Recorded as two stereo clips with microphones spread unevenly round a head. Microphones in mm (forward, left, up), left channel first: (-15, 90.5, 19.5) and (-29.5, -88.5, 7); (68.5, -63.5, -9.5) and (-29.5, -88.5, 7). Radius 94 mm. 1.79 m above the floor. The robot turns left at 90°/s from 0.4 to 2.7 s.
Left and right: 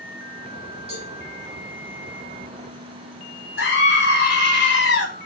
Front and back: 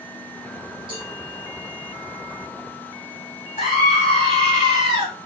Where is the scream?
50° left, 3 m.